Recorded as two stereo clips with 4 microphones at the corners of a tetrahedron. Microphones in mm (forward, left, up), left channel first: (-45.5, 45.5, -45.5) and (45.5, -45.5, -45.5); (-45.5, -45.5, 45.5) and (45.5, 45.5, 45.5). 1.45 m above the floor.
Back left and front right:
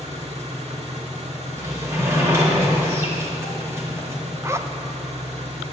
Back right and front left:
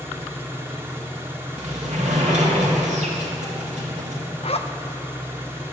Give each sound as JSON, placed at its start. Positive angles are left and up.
{"t": 0.0, "sound": "an engine running", "azimuth_deg": -25, "distance_m": 1.7}
{"t": 1.6, "sound": "a sliding door", "azimuth_deg": 25, "distance_m": 3.0}
{"t": 4.4, "sound": "a zipper", "azimuth_deg": -110, "distance_m": 0.6}